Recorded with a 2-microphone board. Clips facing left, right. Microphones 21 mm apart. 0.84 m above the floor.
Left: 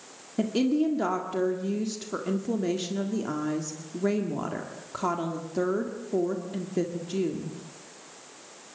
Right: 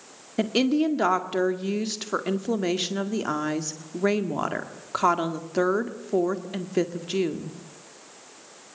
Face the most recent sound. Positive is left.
turn(degrees=-45)  # may be behind; listen again after turning